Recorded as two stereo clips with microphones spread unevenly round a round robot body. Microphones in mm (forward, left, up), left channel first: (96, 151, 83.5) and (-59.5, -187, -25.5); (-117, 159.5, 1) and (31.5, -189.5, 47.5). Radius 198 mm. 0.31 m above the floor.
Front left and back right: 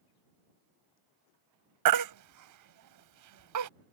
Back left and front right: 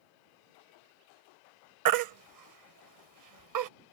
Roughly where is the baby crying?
Right.